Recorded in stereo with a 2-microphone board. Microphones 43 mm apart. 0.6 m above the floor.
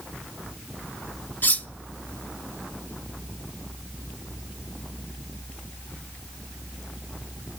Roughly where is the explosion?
No explosion in this recording.